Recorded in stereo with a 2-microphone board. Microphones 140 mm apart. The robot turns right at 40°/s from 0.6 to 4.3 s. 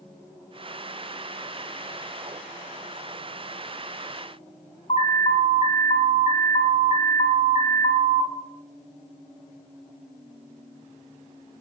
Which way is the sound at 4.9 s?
60° left (ahead or behind).